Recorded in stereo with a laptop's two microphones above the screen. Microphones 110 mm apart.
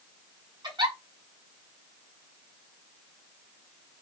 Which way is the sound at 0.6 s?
45° right (ahead or behind).